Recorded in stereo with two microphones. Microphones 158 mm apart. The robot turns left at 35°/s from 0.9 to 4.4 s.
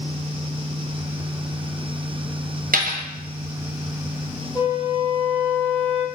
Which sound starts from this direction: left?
A flute, at 4.5 s.